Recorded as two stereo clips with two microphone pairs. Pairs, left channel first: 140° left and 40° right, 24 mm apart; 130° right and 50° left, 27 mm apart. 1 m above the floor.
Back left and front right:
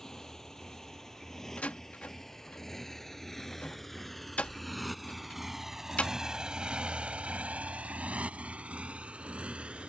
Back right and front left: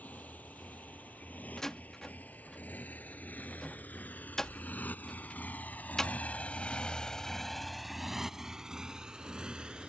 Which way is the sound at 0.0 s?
150° right.